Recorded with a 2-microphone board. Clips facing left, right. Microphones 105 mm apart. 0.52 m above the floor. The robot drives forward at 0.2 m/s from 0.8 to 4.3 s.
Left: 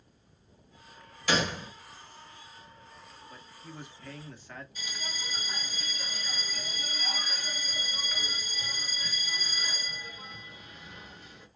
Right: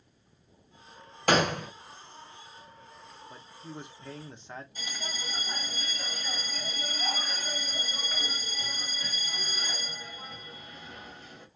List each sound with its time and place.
1.3 s a gunshot: 50° right (ahead or behind), 0.6 m; by 1.7 s 60° right (ahead or behind), 0.5 m
3.3 s a man speaking: 25° right (ahead or behind), 0.7 m
4.8 s a bell: 30° right (ahead or behind), 1.5 m